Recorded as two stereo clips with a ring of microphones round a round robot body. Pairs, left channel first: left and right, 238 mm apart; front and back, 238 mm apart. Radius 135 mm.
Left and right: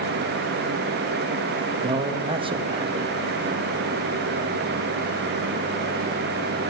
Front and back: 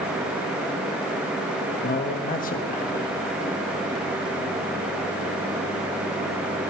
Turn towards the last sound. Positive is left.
turn(degrees=-35)